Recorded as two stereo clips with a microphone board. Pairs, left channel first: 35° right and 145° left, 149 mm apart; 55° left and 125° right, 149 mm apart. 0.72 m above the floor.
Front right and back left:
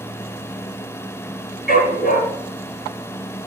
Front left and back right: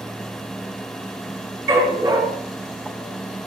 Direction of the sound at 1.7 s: 50° right.